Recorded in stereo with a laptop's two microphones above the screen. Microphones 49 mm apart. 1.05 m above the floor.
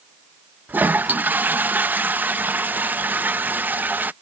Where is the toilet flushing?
40° right (ahead or behind).